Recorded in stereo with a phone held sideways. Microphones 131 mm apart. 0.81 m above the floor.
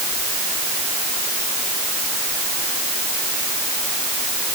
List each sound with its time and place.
Only background noise.